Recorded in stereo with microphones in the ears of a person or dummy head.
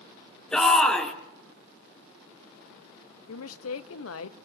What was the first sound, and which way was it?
A shout, 5° left (ahead or behind).